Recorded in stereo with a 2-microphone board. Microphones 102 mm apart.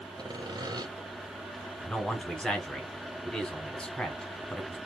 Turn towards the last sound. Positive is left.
turn(degrees=10)  # may be behind; listen again after turning